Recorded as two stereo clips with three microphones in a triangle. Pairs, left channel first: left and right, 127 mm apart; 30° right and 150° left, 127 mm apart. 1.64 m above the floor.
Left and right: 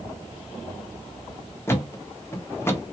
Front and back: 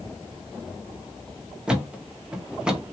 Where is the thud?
80° left, 0.9 m.